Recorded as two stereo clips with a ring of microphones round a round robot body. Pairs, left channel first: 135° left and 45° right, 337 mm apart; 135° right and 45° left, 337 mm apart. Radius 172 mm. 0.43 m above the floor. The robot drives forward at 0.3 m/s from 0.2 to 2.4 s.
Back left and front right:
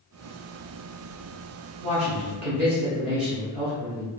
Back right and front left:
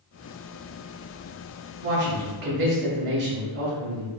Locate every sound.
1.8 s a man speaking: 10° left, 1.1 m